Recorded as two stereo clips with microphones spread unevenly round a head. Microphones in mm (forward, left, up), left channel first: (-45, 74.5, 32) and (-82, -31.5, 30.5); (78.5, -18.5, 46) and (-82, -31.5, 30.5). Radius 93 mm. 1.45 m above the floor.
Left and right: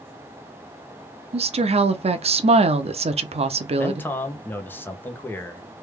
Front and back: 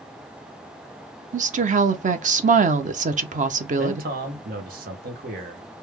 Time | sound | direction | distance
1.3 | a woman speaking | 135° right | 0.6 m
3.8 | a man speaking | 145° left | 1.1 m